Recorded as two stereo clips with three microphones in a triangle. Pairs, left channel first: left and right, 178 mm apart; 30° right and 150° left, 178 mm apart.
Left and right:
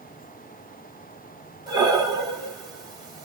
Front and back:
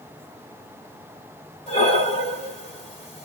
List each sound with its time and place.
1.7 s breathing: 40° right, 1.3 m